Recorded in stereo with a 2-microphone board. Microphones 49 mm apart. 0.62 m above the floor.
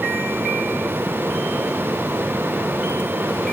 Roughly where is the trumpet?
I don't hear a trumpet.